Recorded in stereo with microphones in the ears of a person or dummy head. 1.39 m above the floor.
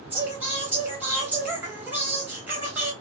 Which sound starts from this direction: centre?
Singing, at 0.1 s.